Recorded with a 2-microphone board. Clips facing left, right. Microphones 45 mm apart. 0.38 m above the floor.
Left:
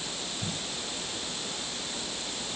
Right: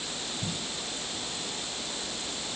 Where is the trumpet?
I don't hear a trumpet.